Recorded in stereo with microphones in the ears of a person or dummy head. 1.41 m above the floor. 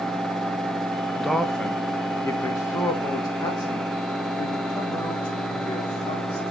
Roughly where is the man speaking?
Centre.